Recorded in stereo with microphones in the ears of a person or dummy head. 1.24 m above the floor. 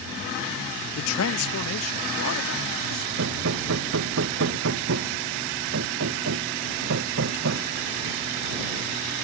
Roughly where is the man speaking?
Left.